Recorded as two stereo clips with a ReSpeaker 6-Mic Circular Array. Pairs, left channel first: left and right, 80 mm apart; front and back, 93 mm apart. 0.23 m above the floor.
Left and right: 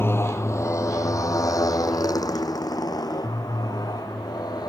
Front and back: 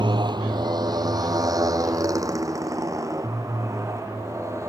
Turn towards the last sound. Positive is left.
turn(degrees=120)